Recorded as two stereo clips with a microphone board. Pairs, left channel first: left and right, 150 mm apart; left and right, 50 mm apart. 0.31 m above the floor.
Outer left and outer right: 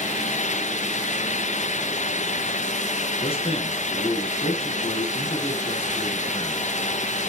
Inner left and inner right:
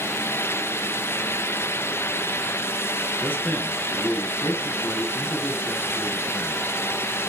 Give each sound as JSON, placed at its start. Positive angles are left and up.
{"t": 3.2, "sound": "a man speaking", "side_deg": 40, "distance_m": 3.5}